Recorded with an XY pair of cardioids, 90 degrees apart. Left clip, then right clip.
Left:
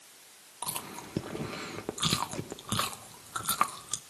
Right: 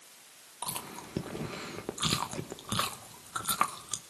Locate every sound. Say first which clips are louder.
0.6 s chewing: left 1 dB; 15° left, 1.1 m